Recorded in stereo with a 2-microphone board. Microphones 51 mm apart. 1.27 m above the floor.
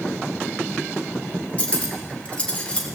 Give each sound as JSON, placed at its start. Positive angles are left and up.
{"t": 1.6, "sound": "cutlery clinking", "side_deg": 20, "distance_m": 2.0}